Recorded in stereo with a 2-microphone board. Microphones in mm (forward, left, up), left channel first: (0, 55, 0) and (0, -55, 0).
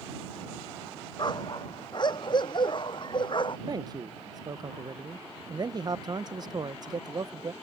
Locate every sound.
1.2 s a dog barking: 40° left (ahead or behind); by 3.6 s 45° left (ahead or behind)
3.7 s a man speaking: 35° right (ahead or behind)